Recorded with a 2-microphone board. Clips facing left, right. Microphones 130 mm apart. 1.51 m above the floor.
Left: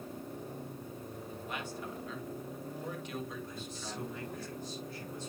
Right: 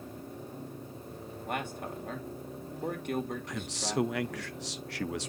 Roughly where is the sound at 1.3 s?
Right.